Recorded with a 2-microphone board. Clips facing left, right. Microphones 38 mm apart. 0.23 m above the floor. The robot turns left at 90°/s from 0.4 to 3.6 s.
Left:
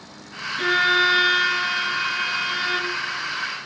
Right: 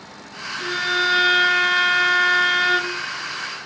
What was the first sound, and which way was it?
A violin, 50° left.